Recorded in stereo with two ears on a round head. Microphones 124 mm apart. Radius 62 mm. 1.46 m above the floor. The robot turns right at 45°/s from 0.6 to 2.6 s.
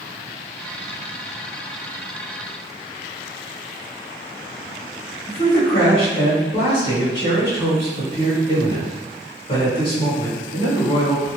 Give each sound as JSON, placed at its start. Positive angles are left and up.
{"t": 5.3, "sound": "a man speaking", "side_deg": 55, "distance_m": 1.4}